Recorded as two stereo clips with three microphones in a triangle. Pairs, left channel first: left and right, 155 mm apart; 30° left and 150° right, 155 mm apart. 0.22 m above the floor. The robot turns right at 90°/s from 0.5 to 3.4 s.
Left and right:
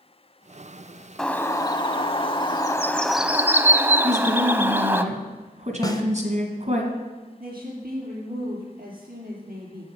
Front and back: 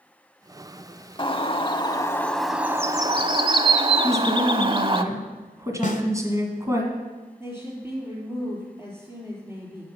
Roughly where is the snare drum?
Ahead left.